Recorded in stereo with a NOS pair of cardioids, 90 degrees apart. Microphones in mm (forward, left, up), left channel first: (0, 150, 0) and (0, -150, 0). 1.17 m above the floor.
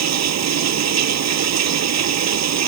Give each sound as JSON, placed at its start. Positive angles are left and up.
{"t": 0.0, "sound": "running water", "azimuth_deg": -60}